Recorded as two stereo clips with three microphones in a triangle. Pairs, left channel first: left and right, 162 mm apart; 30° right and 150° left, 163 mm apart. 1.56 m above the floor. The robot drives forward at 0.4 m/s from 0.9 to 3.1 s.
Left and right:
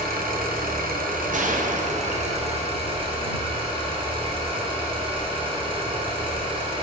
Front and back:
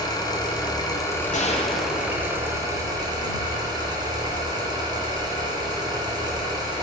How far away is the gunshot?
About 0.6 m.